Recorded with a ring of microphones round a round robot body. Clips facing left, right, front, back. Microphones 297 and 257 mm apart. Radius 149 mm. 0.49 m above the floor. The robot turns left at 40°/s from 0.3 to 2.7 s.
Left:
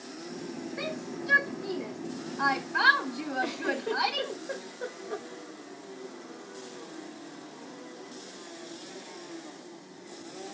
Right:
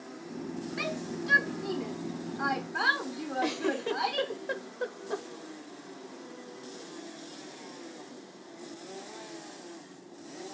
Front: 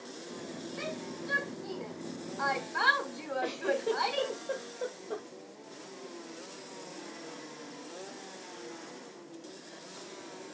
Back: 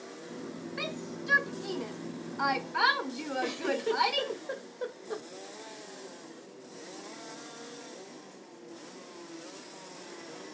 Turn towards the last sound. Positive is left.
turn(degrees=-115)